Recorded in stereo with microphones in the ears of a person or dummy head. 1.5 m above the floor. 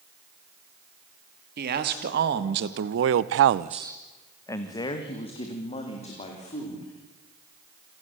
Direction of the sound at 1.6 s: 50° right (ahead or behind).